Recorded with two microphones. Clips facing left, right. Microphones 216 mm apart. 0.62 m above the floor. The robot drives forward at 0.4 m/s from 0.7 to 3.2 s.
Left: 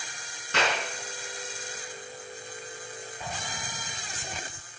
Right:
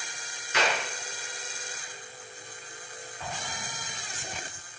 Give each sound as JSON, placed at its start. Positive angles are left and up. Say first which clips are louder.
{"t": 0.5, "sound": "a clap", "louder": "even", "side_deg": 80, "distance_m": 5.5}
{"t": 3.2, "sound": "an explosion", "louder": "right 2 dB", "side_deg": 20, "distance_m": 3.5}